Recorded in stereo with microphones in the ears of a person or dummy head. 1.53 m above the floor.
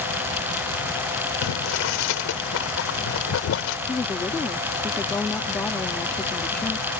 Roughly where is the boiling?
Left.